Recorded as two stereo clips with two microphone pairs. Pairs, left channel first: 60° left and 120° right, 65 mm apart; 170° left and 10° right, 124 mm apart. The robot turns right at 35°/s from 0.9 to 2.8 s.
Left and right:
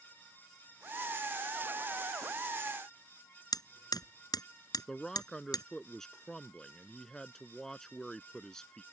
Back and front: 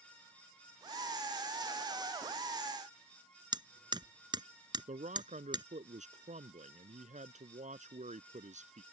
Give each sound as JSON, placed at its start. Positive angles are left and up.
{"t": 3.5, "sound": "hammering", "azimuth_deg": 45}
{"t": 4.9, "sound": "a man speaking", "azimuth_deg": -25}